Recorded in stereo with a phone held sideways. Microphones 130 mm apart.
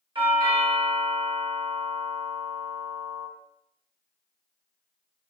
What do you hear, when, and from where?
0.1 s a doorbell: 40° right (ahead or behind), 1.4 m